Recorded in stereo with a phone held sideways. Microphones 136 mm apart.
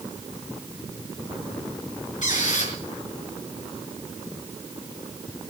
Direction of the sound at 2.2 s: 65° left (ahead or behind).